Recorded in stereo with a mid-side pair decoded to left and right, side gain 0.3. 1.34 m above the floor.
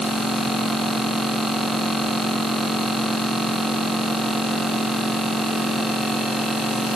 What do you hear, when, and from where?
Only background noise.